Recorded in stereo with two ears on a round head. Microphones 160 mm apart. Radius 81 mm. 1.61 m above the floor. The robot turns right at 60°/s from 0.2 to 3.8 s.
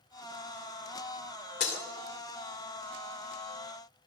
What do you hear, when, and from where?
1.6 s breaking glass: 65° left (ahead or behind), 2.5 m; by 1.8 s 60° left (ahead or behind), 2.5 m